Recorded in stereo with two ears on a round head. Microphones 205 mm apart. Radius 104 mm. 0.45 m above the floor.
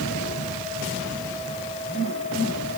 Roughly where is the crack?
I don't hear a crack.